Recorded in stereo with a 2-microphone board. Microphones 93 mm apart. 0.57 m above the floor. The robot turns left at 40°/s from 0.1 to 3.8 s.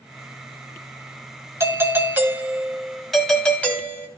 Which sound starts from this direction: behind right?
A doorbell, at 1.6 s.